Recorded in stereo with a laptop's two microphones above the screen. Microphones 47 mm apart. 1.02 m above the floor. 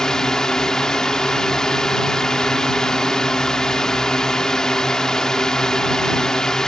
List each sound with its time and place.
0.0 s a drone: 10° left (ahead or behind)